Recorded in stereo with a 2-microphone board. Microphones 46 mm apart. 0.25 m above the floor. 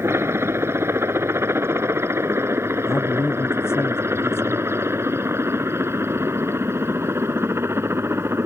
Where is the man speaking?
65° left (ahead or behind).